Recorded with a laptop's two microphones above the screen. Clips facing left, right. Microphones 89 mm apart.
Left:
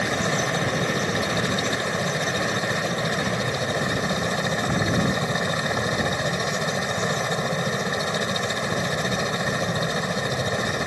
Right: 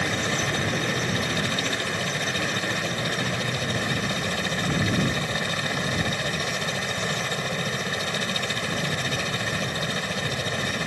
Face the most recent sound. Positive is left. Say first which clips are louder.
# left 3 dB
turn(degrees=20)  # may be behind; listen again after turning